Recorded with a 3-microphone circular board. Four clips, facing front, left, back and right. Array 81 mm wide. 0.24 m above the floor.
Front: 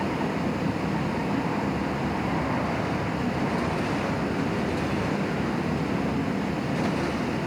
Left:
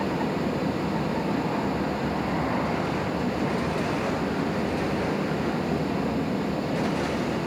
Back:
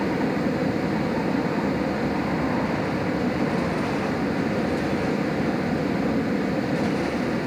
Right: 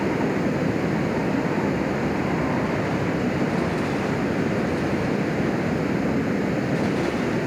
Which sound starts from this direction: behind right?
Running water, at 0.0 s.